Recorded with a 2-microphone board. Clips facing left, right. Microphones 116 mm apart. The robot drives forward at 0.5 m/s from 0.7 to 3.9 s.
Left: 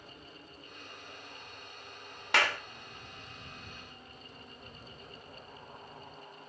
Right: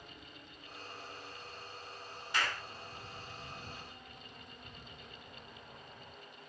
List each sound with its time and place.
2.3 s a clap: 70° left (ahead or behind), 1.3 m; by 2.6 s 65° left (ahead or behind), 1.4 m